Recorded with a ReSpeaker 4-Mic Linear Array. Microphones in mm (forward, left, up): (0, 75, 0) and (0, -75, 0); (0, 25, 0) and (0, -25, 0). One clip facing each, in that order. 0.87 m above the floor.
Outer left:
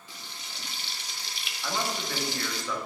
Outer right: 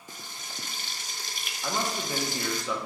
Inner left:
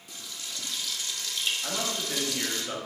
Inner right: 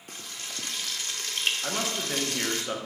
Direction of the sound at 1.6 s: 15° right (ahead or behind).